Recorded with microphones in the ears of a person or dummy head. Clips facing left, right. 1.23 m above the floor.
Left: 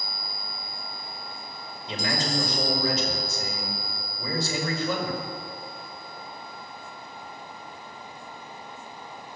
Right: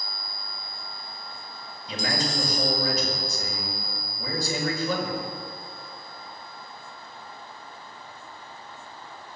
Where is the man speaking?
30° left (ahead or behind), 5.5 m.